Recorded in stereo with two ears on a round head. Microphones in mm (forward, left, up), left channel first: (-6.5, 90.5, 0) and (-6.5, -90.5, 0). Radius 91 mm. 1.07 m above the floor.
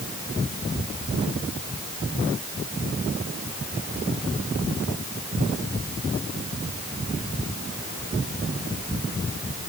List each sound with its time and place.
Only background noise.